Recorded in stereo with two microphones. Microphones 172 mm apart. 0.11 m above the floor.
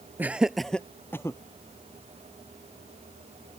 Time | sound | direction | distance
0.2 | laughter | 10° right (ahead or behind) | ?